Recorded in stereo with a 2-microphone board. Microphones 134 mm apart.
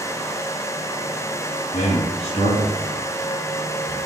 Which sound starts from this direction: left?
A man speaking, at 1.7 s.